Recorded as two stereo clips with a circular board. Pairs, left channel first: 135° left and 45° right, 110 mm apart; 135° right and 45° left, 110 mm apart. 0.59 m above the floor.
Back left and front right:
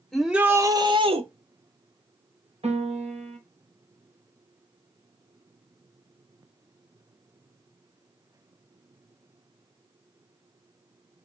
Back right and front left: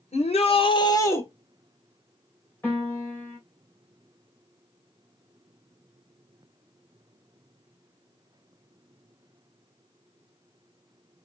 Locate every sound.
0.1 s a shout: 140° right, 1.4 m; by 1.2 s 70° right, 1.5 m
2.6 s a piano: 65° right, 3 m